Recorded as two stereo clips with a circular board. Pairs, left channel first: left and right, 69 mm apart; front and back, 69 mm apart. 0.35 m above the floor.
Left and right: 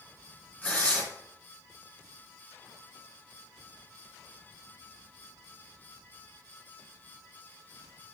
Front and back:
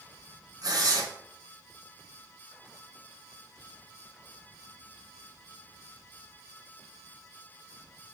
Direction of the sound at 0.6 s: 160° left.